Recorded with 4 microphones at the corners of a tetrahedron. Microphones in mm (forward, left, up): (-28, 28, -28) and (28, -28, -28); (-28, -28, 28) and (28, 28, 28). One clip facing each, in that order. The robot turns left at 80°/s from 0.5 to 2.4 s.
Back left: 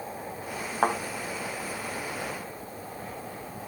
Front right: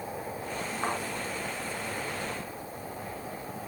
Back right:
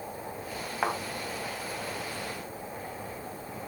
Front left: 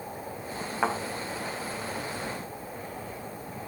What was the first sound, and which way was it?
A thud, 135° left.